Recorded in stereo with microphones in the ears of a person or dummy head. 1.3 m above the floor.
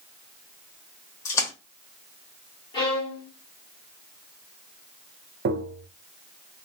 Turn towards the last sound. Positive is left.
turn(degrees=-55)  # may be behind; listen again after turning